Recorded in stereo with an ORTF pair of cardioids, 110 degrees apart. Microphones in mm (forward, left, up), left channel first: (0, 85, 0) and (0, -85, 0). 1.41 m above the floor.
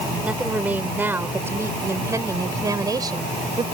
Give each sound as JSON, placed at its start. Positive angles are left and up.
{"t": 0.2, "sound": "a woman speaking", "azimuth_deg": -5}